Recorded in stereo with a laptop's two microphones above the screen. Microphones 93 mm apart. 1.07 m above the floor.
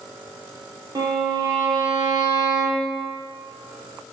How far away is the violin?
About 0.8 m.